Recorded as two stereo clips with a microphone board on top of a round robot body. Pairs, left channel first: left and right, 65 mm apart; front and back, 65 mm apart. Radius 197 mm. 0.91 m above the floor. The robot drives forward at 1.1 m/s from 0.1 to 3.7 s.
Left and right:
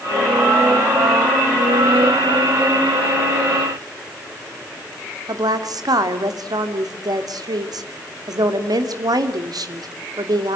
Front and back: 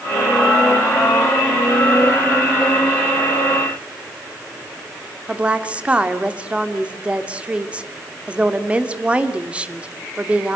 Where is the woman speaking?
105° right, 2.5 m.